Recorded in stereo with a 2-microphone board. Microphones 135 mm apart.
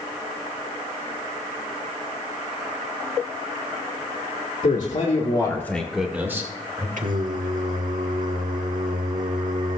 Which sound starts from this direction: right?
Singing, at 7.0 s.